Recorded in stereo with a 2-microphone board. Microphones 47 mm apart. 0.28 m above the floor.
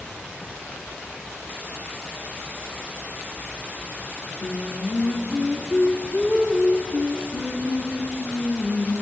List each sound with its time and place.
4.4 s singing: 40° left (ahead or behind), 1.3 m